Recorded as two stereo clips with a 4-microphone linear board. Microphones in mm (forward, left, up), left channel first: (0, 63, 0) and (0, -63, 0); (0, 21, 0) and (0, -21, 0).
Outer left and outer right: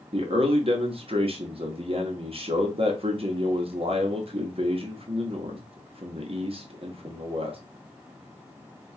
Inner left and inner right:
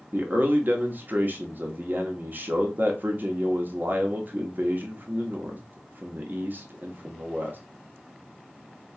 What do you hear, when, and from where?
0.1 s a man speaking: 50° right (ahead or behind), 0.9 m